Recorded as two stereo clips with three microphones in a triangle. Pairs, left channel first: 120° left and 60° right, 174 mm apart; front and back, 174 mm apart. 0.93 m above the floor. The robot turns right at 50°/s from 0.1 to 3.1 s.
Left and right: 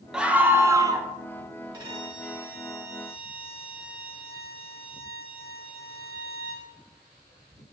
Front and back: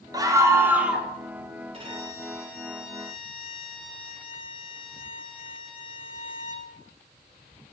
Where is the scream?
140° right, 0.7 m; by 1.1 s 95° right, 0.7 m.